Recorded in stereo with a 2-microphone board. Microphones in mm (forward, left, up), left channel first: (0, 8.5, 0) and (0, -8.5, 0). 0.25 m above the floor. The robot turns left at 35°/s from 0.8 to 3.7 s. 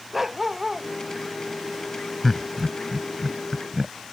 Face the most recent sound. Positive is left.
turn(degrees=-20)  # may be behind; listen again after turning